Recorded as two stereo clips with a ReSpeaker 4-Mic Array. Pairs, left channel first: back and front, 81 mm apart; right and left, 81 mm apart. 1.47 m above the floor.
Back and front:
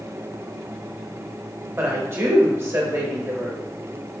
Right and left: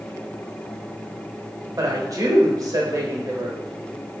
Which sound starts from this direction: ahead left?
A woman speaking, at 1.8 s.